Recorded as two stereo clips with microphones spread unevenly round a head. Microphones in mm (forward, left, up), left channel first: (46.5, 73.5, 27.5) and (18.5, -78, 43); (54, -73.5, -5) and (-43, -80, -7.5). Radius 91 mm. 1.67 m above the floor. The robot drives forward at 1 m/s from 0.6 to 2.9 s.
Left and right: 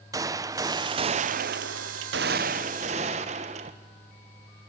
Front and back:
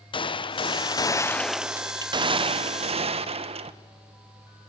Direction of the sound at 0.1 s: 30° right.